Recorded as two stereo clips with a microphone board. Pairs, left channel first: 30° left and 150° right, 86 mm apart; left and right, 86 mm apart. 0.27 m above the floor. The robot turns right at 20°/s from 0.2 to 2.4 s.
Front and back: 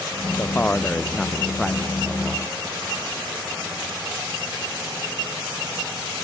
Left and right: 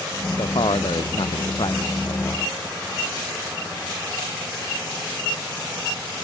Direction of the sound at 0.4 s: 95° left.